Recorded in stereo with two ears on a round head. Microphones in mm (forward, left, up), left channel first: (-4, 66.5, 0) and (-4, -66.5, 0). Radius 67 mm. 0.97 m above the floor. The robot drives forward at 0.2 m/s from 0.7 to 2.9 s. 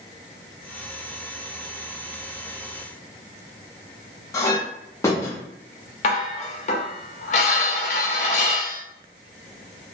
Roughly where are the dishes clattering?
Left.